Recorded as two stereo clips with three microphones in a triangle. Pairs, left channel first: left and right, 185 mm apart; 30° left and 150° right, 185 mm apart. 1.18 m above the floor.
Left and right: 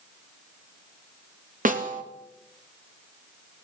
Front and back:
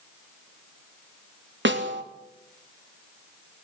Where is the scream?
I don't hear a scream.